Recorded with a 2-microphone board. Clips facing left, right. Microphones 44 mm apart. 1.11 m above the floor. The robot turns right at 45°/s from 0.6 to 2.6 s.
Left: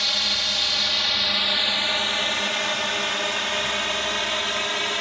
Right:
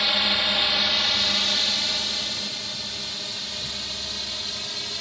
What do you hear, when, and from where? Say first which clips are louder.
0.0 s a drone: right 2 dB; 15° right (ahead or behind); by 5.0 s 50° left (ahead or behind)